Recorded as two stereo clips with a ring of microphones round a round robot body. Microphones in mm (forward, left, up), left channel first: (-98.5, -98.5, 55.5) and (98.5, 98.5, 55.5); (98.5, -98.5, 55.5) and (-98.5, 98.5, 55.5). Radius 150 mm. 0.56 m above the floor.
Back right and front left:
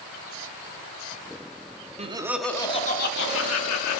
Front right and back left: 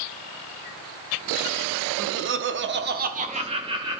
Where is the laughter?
105° left, 0.9 m; by 4.0 s 150° right, 1.3 m.